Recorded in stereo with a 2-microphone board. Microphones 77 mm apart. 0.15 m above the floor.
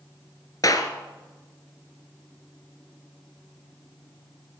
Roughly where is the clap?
Left.